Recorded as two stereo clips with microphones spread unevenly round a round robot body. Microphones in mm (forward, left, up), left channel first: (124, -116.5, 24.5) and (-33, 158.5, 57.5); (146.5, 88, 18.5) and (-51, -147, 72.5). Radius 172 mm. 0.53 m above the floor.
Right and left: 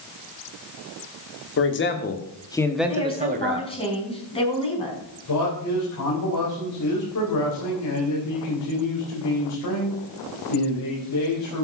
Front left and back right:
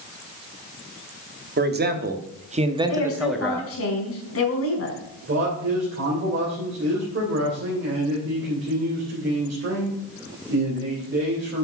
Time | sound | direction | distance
1.6 | a man speaking | 75° right | 1.6 m
2.9 | a woman speaking | 10° left | 4.5 m
5.3 | a man speaking | 80° right | 3.5 m